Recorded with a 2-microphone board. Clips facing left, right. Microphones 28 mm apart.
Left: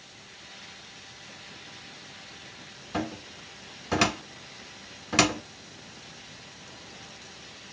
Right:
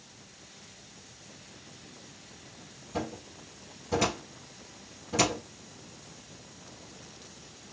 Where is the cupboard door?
65° left (ahead or behind), 1.4 m.